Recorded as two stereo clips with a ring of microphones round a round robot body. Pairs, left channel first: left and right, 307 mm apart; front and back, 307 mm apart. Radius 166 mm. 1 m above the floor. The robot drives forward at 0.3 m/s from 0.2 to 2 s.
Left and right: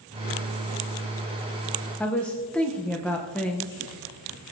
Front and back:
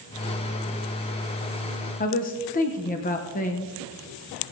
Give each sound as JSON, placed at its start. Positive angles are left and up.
{"t": 2.0, "sound": "a woman speaking", "azimuth_deg": 10, "distance_m": 0.8}